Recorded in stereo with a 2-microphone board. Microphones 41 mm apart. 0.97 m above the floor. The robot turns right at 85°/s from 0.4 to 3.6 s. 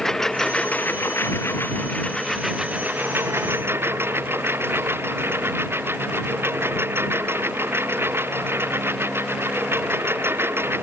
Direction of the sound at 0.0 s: 10° left.